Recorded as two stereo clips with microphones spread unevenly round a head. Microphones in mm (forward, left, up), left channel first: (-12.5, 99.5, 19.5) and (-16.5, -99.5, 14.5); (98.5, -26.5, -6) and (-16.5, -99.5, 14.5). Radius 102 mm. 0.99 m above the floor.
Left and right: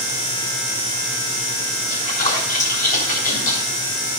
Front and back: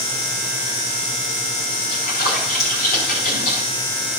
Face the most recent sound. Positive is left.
turn(degrees=35)